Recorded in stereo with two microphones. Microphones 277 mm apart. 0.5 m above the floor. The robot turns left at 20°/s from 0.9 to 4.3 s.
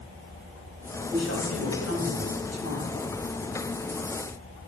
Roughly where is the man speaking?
Behind left.